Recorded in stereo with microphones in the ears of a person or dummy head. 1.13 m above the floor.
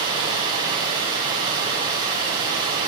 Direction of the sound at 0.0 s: 25° right (ahead or behind).